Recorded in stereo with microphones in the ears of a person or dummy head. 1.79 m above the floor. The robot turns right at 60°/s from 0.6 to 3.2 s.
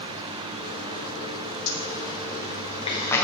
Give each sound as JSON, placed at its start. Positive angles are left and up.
{"t": 1.7, "sound": "a zipper", "side_deg": 75, "distance_m": 1.4}